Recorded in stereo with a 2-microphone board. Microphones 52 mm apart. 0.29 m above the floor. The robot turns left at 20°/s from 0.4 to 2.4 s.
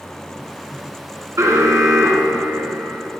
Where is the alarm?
70° right (ahead or behind), 2 m.